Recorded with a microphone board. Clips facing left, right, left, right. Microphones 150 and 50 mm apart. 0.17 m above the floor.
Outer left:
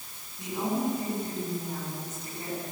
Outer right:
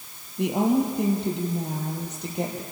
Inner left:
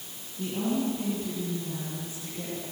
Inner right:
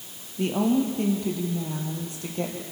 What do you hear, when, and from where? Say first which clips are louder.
0.4 s a woman speaking: outer right 8 dB, inner right 6 dB; 70° right (ahead or behind), 5 m; by 2.6 s 75° right (ahead or behind), 5.5 m